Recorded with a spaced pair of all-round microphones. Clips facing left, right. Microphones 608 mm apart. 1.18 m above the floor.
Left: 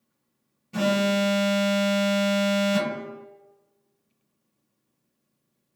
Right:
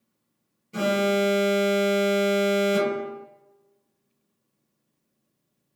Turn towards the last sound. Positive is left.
turn(degrees=25)  # may be behind; listen again after turning